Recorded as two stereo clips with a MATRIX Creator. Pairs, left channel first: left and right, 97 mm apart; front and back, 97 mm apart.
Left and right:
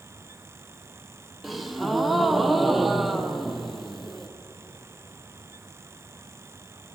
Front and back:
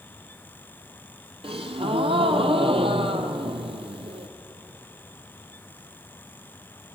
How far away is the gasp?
About 0.6 m.